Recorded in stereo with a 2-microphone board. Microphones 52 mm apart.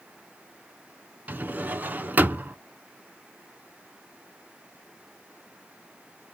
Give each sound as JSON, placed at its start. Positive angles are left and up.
{"t": 1.3, "sound": "a drawer", "side_deg": -35, "distance_m": 0.6}